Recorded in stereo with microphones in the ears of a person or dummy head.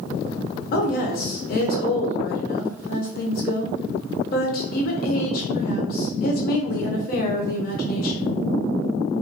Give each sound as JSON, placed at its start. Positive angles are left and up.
{"t": 0.7, "sound": "a woman speaking", "side_deg": 50, "distance_m": 0.6}